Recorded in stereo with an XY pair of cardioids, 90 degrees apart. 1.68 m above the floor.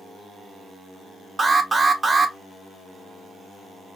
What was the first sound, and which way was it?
An alarm, 15° right.